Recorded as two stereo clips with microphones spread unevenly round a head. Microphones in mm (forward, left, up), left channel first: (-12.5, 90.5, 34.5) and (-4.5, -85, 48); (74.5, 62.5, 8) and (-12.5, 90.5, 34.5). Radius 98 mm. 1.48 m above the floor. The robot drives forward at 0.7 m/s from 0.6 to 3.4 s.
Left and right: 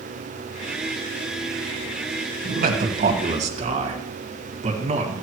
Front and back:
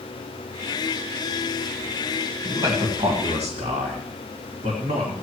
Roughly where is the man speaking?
Behind right.